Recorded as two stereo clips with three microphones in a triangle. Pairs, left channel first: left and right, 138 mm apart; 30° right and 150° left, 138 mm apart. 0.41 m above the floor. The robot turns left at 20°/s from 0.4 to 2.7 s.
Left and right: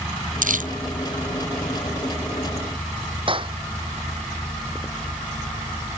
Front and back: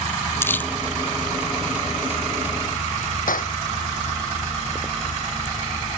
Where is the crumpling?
105° right; by 0.7 s 110° right.